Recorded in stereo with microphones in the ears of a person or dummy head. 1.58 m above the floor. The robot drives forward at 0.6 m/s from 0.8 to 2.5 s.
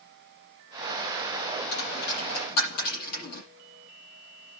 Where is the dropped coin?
55° left (ahead or behind), 8 m.